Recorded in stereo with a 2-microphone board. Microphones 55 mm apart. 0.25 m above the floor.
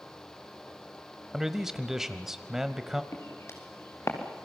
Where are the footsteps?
65° left (ahead or behind), 4 m; by 4.5 s 55° left (ahead or behind), 3.5 m.